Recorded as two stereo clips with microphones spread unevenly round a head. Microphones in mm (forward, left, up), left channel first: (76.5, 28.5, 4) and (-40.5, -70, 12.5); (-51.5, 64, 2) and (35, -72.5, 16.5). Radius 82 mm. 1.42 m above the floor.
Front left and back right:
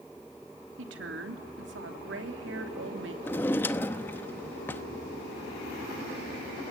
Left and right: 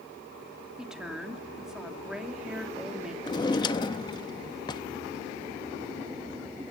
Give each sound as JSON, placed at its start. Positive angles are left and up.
{"t": 0.8, "sound": "a woman speaking", "azimuth_deg": -145, "distance_m": 3.0}
{"t": 3.2, "sound": "a drawer", "azimuth_deg": 100, "distance_m": 0.8}